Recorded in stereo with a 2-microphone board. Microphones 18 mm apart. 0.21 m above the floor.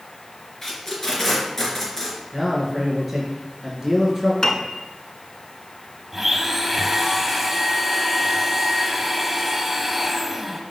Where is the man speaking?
15° right (ahead or behind), 3 m.